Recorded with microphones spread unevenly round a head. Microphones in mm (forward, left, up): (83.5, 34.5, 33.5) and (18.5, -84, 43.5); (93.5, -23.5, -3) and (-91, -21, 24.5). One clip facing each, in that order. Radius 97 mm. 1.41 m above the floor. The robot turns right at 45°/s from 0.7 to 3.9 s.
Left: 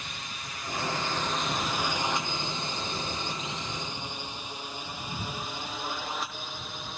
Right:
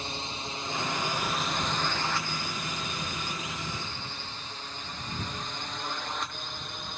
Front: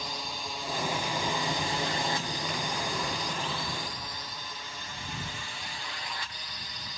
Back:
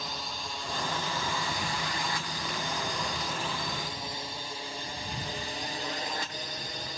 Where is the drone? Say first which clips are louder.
Right 5 dB, front 1 dB; 80° right; by 7.0 s 145° left.